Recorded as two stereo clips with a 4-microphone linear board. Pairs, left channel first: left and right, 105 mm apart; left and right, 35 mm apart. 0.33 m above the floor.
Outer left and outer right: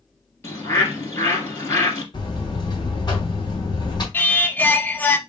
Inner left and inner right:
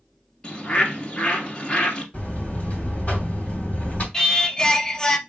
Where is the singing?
15° left (ahead or behind), 0.6 m.